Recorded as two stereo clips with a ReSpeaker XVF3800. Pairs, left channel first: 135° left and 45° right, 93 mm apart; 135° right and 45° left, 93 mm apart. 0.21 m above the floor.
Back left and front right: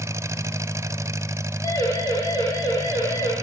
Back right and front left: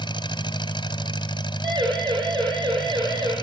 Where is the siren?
80° left, 7 m.